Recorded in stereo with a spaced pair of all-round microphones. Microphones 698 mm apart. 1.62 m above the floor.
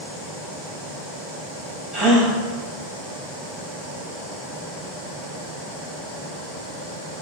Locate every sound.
1.9 s a gasp: centre (ahead or behind), 2.5 m